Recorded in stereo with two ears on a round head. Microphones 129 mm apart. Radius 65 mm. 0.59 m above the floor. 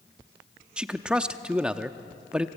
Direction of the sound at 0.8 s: 5° right (ahead or behind).